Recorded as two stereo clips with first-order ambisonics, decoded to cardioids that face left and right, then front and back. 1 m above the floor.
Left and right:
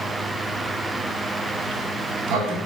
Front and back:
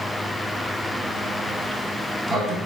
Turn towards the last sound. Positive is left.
turn(degrees=-115)